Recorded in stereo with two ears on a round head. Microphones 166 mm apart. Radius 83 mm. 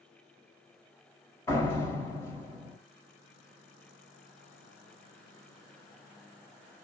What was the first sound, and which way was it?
A door slam, 20° left (ahead or behind).